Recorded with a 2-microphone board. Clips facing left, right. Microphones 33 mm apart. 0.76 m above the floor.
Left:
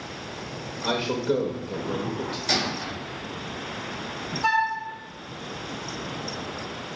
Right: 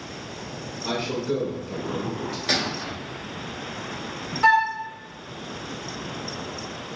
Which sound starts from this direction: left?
A man speaking, at 0.8 s.